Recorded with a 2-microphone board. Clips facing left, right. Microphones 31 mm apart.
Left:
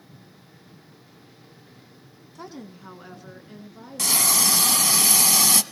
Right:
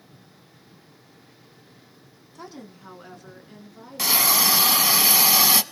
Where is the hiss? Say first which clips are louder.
Right 2 dB; 15° right (ahead or behind), 0.6 m.